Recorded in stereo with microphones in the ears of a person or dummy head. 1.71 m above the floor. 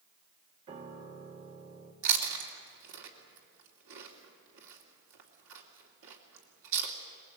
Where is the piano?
25° right (ahead or behind), 1.7 m.